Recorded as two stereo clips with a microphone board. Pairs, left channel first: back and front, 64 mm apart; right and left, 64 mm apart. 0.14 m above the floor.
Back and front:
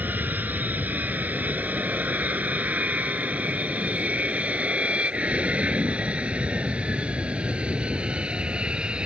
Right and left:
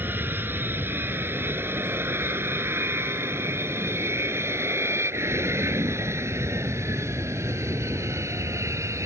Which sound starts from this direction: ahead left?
An aircraft, at 0.0 s.